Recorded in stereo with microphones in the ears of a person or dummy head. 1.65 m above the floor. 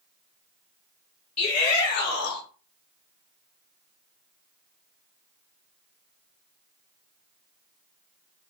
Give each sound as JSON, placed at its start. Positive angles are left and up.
{"t": 1.4, "sound": "a shout", "side_deg": 35, "distance_m": 1.3}